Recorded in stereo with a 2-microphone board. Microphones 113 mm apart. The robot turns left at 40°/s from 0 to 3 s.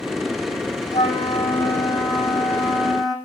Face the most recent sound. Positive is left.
turn(degrees=0)